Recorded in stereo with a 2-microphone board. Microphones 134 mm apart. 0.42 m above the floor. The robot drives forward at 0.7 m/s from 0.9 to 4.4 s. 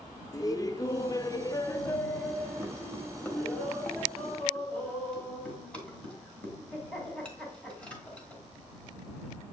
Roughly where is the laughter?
Left.